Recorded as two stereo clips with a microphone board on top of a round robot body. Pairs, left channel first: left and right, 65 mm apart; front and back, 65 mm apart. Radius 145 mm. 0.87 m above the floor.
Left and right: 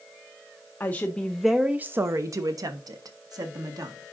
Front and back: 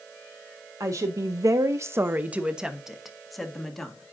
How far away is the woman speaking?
About 1.0 m.